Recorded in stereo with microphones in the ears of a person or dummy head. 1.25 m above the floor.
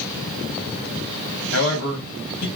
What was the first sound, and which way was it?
A man speaking, 60° left (ahead or behind).